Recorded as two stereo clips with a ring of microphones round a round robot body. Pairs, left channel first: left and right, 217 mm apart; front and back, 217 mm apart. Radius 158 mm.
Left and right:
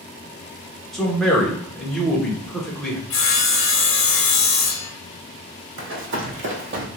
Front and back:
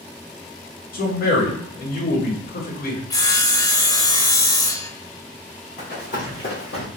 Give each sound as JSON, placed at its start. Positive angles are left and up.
{"t": 0.9, "sound": "a man speaking", "azimuth_deg": 0, "distance_m": 0.9}
{"t": 3.1, "sound": "sawing", "azimuth_deg": 75, "distance_m": 0.7}
{"t": 5.8, "sound": "running footsteps", "azimuth_deg": -70, "distance_m": 1.5}